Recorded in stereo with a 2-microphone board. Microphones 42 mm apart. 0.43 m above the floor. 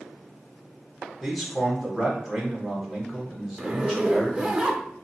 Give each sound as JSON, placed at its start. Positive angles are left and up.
{"t": 1.2, "sound": "a man speaking", "side_deg": 0, "distance_m": 1.2}
{"t": 3.6, "sound": "a zipper", "side_deg": -25, "distance_m": 0.6}